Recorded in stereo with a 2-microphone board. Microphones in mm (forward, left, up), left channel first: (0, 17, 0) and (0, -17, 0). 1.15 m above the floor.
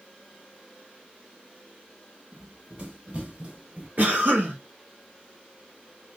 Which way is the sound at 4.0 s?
55° right (ahead or behind).